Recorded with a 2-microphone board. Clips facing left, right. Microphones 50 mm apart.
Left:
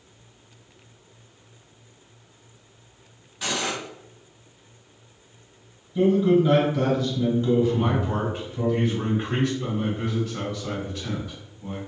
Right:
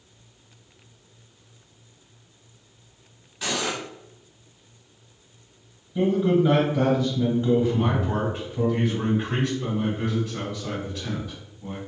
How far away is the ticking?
No ticking in this recording.